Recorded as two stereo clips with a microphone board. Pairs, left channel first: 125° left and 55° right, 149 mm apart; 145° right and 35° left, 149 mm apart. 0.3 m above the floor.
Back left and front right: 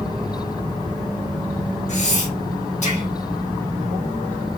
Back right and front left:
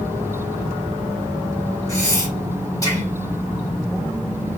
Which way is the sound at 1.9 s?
150° left.